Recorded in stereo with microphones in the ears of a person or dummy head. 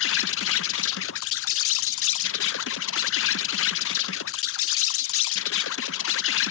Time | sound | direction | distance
0.0 | an insect | 65° left (ahead or behind) | ?